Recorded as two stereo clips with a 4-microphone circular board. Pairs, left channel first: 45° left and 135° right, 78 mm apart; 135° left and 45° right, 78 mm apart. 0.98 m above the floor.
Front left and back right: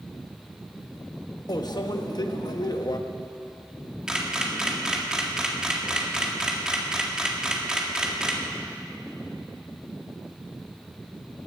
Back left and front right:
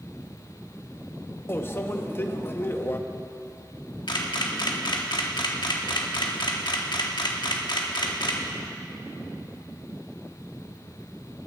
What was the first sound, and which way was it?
A microwave, 75° left.